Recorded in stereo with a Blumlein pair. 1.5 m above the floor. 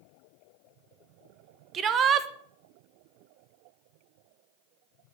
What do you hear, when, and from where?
1.7 s a shout: 25° right, 1.5 m